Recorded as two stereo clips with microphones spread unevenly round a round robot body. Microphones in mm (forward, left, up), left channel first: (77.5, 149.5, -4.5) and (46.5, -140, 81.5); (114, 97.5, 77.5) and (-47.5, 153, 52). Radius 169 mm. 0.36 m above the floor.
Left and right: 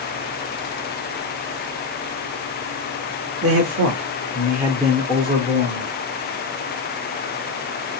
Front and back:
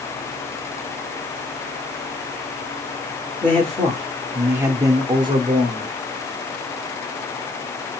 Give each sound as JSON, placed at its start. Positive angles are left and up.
{"t": 3.4, "sound": "a man speaking", "azimuth_deg": -105, "distance_m": 1.0}